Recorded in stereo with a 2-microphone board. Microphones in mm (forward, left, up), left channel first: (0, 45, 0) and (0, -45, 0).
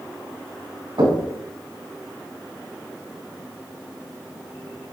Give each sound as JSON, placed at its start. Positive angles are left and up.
{"t": 1.0, "sound": "knocking", "side_deg": -85, "distance_m": 6.0}